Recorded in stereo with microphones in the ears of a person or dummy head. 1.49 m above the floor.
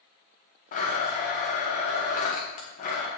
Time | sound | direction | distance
0.7 | a blender | 45° left (ahead or behind) | 1.3 m